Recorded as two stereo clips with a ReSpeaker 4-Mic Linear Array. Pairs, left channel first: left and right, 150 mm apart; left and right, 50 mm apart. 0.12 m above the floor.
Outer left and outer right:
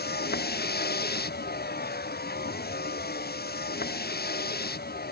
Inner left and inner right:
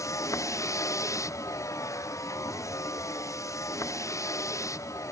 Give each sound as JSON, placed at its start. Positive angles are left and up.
{"t": 0.0, "sound": "a vehicle", "side_deg": 80}